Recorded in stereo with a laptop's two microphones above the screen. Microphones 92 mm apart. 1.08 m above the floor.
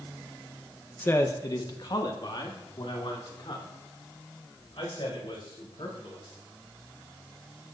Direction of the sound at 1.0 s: 20° left (ahead or behind).